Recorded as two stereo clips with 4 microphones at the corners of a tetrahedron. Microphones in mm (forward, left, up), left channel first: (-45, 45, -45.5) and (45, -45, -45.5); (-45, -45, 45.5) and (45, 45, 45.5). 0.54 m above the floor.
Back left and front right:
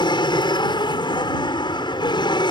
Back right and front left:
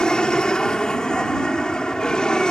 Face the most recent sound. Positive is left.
turn(degrees=145)